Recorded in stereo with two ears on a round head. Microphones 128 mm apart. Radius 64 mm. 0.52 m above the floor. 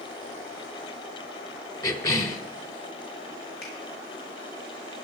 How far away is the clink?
No clink in this recording.